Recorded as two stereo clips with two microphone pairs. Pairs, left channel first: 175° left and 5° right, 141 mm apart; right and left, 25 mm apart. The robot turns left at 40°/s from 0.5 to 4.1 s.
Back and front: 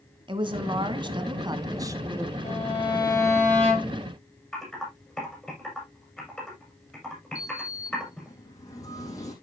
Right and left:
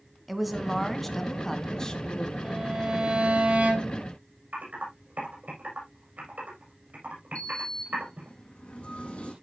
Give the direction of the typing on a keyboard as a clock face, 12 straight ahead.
9 o'clock.